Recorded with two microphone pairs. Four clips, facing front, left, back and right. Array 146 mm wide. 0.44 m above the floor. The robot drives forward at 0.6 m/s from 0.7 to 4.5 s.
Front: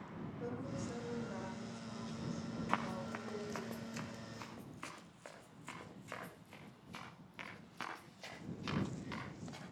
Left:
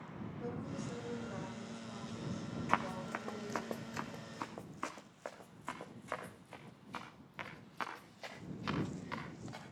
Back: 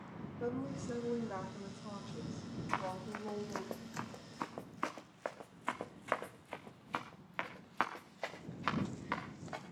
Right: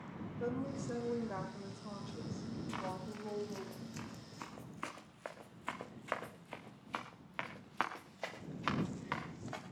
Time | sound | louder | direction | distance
0.4 | a woman speaking | right 5 dB, back 5 dB | 125° right | 1.8 m
2.7 | running footsteps | left 9 dB, back 1 dB | 80° left | 1.9 m